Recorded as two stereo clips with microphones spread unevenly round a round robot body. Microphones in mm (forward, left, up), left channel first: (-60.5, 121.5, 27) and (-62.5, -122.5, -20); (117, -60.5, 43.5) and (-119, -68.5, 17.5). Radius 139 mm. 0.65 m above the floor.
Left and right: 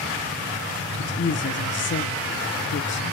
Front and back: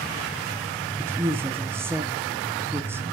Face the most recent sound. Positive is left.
turn(degrees=115)